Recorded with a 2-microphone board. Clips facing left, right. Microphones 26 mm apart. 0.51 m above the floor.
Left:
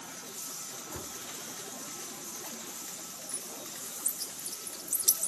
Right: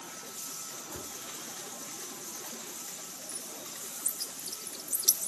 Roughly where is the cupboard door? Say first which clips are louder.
Left 2 dB; left.